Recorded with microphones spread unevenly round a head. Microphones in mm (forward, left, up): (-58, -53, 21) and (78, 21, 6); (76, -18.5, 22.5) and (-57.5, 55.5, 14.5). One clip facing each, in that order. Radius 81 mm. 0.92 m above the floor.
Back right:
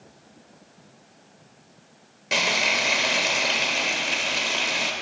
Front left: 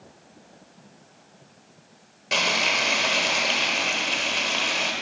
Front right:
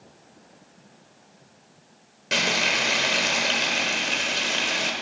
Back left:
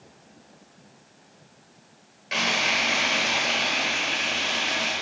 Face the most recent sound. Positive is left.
turn(degrees=-70)